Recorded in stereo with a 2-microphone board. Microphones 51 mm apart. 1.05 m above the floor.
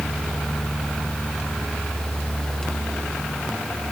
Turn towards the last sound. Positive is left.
No sound to turn to.